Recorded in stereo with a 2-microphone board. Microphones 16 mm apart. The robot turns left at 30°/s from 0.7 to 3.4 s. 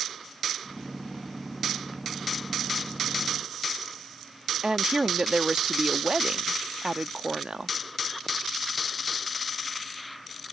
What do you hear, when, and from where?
4.6 s a woman speaking: 60° right (ahead or behind)